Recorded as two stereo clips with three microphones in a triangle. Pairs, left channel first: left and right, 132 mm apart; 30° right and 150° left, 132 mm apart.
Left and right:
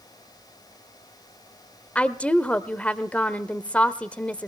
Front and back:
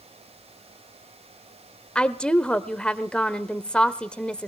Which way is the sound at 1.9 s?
35° left.